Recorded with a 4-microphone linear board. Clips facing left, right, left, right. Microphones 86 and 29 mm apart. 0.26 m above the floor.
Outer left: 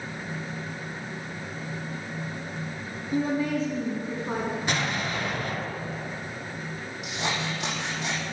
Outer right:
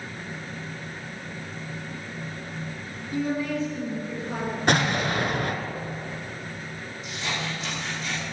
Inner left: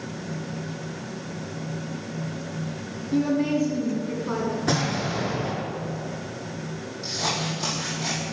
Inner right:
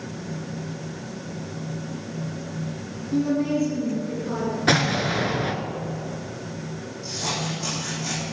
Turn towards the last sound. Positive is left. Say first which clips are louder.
# outer left 2 dB, inner left 1 dB
turn(degrees=85)